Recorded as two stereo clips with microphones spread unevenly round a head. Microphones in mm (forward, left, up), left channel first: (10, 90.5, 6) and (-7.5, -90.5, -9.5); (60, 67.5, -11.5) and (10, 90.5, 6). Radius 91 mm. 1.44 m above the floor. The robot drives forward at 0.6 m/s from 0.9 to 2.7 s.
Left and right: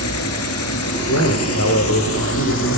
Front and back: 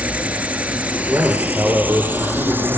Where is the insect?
90° left, 4.5 m; by 2.8 s 105° left, 5 m.